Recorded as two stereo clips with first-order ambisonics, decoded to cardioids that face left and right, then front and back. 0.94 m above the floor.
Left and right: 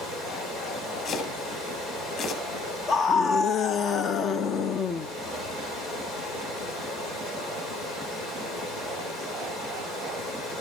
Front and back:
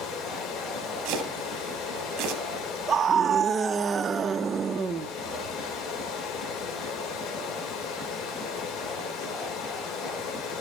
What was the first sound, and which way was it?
Running water, 30° left.